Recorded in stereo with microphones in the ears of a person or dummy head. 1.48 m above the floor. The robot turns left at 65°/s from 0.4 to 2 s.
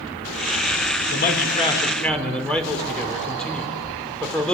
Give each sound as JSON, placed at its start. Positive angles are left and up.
{"t": 1.1, "sound": "a man speaking", "azimuth_deg": 60, "distance_m": 5.5}